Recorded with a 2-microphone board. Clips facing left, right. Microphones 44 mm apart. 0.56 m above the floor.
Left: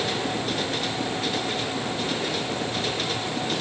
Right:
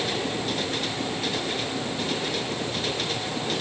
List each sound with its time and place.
Only background noise.